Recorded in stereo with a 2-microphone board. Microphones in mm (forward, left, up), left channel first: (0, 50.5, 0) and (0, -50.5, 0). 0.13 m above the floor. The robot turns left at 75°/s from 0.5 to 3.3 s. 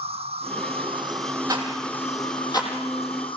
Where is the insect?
90° right, 0.9 m; by 3.4 s 60° left, 0.9 m.